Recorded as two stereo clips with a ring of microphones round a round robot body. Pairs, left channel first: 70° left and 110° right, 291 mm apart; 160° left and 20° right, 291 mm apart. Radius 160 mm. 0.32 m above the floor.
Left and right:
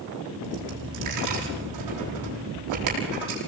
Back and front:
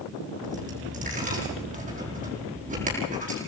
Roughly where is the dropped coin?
Right.